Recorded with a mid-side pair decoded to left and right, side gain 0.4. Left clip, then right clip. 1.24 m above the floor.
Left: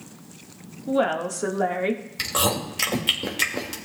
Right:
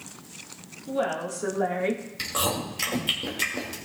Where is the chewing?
40° left, 2.0 m.